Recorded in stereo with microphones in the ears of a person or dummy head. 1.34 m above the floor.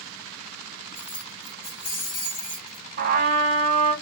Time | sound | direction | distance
0.9 | keys jangling | 70° left (ahead or behind) | 1.6 m
3.0 | a trumpet | 50° right (ahead or behind) | 1.1 m